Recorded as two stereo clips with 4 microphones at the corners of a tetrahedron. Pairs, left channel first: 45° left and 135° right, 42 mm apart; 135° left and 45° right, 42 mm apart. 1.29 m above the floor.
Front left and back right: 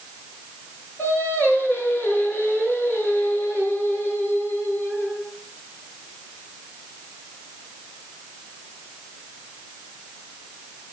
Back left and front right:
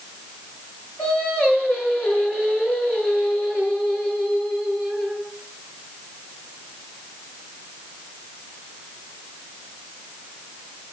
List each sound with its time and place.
1.0 s singing: 90° left, 9 m